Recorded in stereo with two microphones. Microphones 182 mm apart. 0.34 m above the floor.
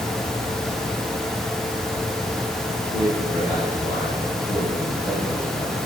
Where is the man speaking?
40° left (ahead or behind), 3.5 m.